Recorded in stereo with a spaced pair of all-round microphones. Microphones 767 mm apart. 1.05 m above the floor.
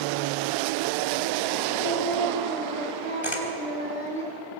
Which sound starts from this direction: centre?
Singing, at 1.8 s.